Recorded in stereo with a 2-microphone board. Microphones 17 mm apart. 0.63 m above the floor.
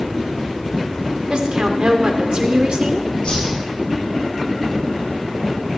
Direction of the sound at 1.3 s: 60° right (ahead or behind).